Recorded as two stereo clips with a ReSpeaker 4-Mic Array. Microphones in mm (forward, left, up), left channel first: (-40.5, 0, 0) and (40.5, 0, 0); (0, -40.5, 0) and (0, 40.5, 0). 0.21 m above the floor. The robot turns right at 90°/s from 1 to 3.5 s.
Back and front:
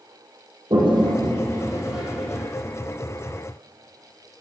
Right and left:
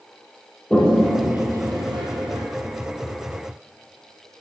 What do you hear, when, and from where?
0.7 s a toilet flushing: 10° right, 3.5 m; by 2.4 s 115° left, 3.5 m